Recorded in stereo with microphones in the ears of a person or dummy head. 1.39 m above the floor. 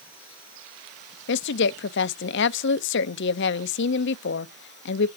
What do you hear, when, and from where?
1.3 s a woman speaking: 65° left (ahead or behind), 0.5 m